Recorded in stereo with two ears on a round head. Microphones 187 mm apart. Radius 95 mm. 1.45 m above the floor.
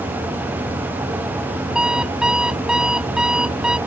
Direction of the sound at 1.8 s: 5° right (ahead or behind).